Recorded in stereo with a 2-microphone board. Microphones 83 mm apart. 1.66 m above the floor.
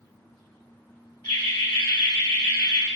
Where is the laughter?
55° left (ahead or behind), 1.1 m; by 2.9 s 45° left (ahead or behind), 0.5 m.